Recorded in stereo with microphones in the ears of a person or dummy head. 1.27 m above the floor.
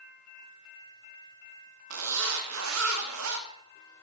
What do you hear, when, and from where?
1.9 s a zipper: 75° right (ahead or behind), 1.6 m